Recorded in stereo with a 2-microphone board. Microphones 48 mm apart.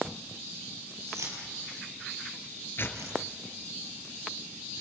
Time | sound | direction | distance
1.1 | keys jangling | 75° right (ahead or behind) | 7 m
2.8 | tearing paper | 50° left (ahead or behind) | 2 m